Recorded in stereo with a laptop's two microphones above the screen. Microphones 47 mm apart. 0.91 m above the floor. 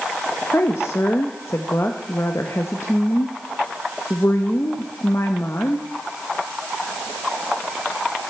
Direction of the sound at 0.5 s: 60° left (ahead or behind).